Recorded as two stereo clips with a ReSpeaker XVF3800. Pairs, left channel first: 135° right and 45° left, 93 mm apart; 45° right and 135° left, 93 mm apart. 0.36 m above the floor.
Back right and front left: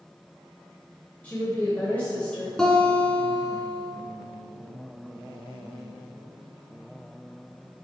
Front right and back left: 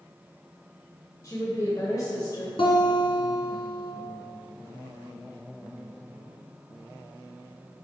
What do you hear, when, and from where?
1.2 s a woman speaking: 70° right, 1.6 m
2.6 s a guitar: 50° right, 1.6 m